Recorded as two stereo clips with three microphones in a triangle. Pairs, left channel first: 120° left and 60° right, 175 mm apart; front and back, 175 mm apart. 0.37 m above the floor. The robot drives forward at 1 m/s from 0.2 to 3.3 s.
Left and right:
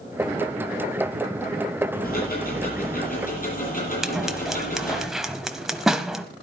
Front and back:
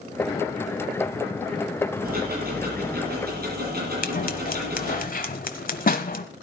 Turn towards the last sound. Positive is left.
turn(degrees=30)